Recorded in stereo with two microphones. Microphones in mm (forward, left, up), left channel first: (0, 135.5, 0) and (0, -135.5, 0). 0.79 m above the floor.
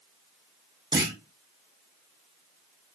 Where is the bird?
No bird in this recording.